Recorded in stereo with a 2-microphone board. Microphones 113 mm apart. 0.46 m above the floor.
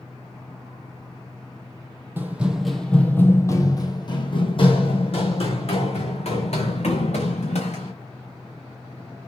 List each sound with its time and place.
2.2 s running footsteps: 20° right (ahead or behind), 0.9 m; by 7.9 s 75° left (ahead or behind), 3 m